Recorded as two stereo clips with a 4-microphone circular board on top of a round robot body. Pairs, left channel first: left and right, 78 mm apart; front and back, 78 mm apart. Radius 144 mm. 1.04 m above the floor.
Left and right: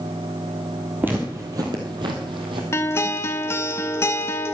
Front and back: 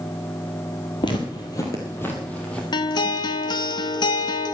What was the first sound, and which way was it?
Footsteps, 20° right.